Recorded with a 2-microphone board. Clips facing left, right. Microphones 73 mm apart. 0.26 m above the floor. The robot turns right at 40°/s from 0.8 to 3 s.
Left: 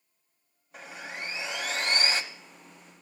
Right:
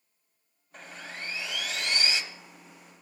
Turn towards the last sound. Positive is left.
turn(degrees=95)